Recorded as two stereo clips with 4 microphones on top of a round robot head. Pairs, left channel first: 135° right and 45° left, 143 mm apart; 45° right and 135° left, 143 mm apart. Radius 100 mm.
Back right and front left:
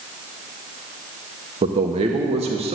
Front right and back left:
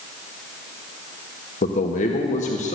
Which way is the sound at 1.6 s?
5° right.